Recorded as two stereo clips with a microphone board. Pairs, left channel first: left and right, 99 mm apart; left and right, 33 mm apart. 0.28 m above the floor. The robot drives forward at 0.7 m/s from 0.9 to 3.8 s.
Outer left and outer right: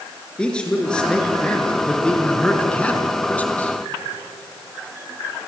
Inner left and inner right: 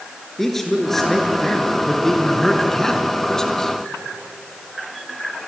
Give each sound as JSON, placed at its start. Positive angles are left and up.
{"t": 0.4, "sound": "a man speaking", "side_deg": 10, "distance_m": 4.5}